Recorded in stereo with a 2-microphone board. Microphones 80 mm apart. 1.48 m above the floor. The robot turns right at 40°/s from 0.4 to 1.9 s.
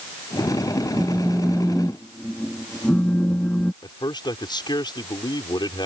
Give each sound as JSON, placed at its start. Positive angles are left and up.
{"t": 1.0, "sound": "a phone buzzing", "azimuth_deg": -25}
{"t": 3.8, "sound": "a man speaking", "side_deg": 65}